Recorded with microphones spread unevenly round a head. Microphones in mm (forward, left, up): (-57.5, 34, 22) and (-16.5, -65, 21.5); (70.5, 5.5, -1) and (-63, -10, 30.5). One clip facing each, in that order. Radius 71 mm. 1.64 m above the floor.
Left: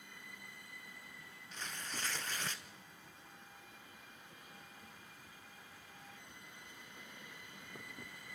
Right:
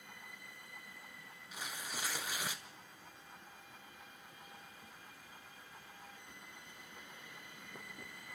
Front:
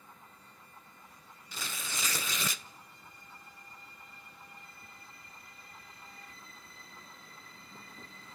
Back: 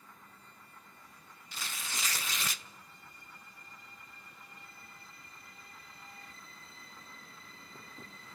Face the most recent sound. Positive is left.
turn(degrees=15)